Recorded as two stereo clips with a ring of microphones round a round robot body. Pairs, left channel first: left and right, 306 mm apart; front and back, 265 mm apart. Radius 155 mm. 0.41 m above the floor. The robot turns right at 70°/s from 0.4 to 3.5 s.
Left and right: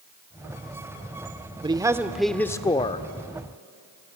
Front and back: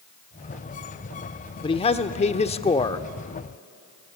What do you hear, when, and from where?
1.6 s a man speaking: 40° right, 0.8 m; by 3.0 s 55° left, 0.8 m